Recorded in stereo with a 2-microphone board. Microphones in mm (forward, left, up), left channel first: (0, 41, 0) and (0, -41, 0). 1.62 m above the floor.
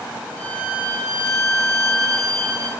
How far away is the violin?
About 1.7 m.